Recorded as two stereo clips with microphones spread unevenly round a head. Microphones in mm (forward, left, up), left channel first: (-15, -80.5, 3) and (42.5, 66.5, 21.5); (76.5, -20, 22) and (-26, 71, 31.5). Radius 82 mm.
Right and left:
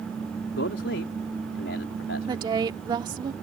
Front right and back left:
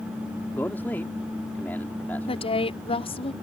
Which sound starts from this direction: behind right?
A man speaking, at 0.5 s.